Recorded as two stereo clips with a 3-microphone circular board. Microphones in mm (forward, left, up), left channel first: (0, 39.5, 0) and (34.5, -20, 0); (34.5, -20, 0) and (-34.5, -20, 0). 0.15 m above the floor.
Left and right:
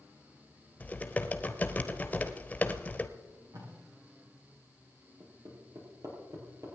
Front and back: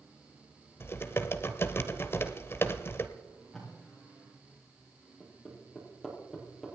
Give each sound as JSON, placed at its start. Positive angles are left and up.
{"t": 0.8, "sound": "typing on a keyboard", "azimuth_deg": 55, "distance_m": 1.0}
{"t": 3.2, "sound": "tape being pulled", "azimuth_deg": -85, "distance_m": 7.0}
{"t": 5.2, "sound": "hammering", "azimuth_deg": -90, "distance_m": 4.5}